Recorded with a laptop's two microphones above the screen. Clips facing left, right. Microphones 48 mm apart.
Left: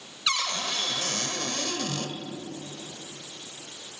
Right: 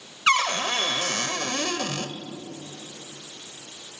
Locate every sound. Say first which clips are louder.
0.3 s a cupboard door: right 8 dB; 45° right (ahead or behind), 1.3 m